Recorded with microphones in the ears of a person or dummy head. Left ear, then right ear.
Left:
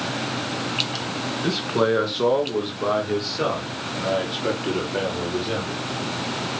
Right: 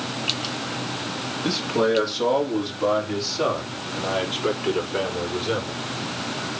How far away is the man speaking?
About 2.5 m.